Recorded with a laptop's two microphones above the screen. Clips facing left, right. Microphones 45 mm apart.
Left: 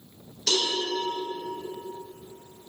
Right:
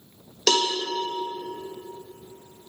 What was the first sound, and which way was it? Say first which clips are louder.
A cowbell: right 5 dB; 70° right (ahead or behind).